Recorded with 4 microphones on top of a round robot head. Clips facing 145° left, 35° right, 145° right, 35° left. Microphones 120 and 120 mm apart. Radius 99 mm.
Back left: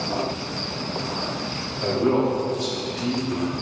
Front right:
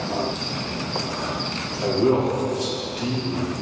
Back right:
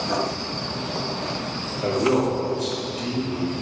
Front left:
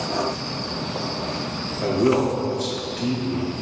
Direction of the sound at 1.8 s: 35° left.